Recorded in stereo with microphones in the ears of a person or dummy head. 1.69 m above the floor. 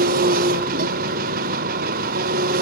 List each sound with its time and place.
0.0 s an engine running: 55° right (ahead or behind), 1.1 m